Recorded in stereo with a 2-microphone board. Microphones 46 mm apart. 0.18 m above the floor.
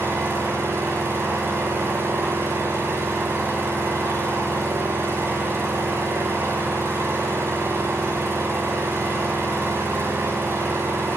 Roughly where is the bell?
I don't hear a bell.